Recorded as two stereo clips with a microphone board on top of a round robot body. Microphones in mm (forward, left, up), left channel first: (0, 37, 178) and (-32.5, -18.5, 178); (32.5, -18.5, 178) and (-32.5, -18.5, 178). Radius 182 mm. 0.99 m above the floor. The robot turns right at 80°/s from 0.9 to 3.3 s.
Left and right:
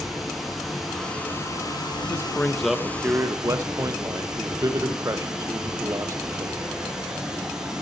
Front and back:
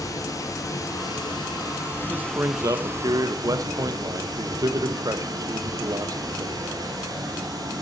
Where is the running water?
30° right, 3.5 m; by 7.8 s 160° left, 3.5 m.